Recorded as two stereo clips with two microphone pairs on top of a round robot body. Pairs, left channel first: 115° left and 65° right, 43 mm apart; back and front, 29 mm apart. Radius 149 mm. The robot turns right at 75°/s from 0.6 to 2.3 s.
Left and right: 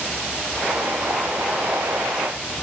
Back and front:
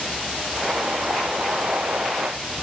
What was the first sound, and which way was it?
Only background noise.